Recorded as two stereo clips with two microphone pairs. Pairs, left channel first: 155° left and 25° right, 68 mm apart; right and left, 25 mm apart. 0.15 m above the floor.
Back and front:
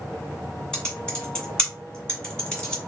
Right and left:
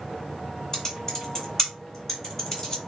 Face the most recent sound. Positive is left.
turn(degrees=-145)